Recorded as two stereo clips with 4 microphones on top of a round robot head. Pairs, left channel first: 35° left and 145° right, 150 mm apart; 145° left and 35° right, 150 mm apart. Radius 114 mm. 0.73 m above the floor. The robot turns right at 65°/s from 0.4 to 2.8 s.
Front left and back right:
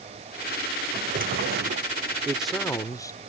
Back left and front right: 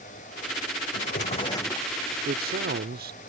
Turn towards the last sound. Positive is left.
turn(degrees=-30)